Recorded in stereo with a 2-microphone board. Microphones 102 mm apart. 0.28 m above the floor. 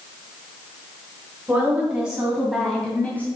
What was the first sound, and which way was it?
A woman speaking, 20° right (ahead or behind).